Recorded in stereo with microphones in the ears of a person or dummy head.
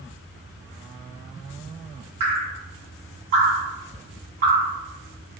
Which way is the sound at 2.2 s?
50° right (ahead or behind).